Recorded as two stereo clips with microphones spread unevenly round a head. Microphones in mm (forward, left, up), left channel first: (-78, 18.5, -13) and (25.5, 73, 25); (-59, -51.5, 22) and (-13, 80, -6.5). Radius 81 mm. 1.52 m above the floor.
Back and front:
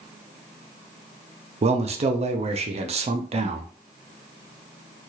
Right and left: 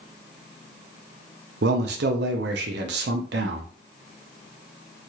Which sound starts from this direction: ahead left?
A man speaking, at 1.6 s.